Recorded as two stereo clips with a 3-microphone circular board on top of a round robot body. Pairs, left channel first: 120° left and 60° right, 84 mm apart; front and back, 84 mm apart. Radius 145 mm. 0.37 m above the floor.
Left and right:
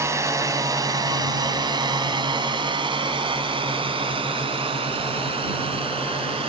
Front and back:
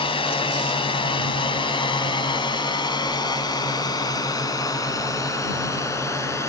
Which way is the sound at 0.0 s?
5° right.